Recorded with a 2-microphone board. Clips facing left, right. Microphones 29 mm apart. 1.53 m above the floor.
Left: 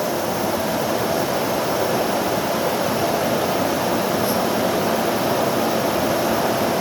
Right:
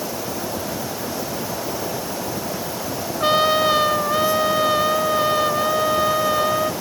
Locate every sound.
3.2 s a trumpet: 70° right (ahead or behind)